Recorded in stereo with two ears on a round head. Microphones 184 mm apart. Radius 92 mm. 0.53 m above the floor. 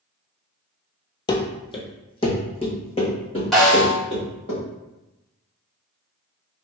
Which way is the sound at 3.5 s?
Centre (ahead or behind).